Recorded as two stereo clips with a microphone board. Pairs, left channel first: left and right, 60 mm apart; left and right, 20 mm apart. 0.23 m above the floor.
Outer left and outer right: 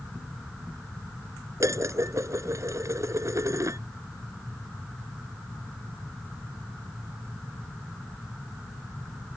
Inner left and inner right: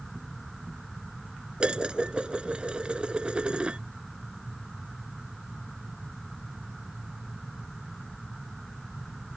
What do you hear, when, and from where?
1.6 s dishes clattering: 60° right (ahead or behind)